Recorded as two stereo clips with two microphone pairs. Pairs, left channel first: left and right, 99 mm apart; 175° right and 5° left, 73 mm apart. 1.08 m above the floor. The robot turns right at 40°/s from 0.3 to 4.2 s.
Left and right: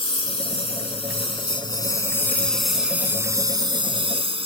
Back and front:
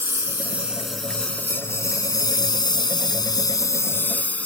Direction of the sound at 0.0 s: 65° left.